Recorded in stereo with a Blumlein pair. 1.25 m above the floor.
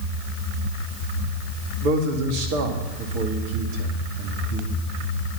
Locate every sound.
1.8 s a man speaking: 45° right, 2 m